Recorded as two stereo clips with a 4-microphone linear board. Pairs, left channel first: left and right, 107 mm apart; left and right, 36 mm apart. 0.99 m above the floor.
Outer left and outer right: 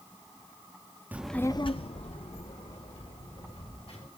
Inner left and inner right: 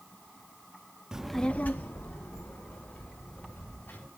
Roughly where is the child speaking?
Centre.